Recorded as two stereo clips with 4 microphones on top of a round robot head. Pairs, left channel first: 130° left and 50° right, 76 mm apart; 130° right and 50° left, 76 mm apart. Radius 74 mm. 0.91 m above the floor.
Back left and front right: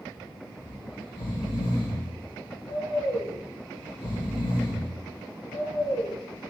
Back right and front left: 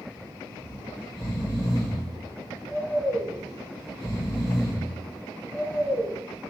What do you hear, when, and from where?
0.6 s snoring: 130° left, 1.1 m